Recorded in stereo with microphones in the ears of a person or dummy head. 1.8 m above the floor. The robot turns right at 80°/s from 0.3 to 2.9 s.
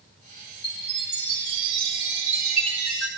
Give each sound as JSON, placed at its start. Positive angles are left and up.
{"t": 0.6, "sound": "a chime", "azimuth_deg": 150, "distance_m": 3.5}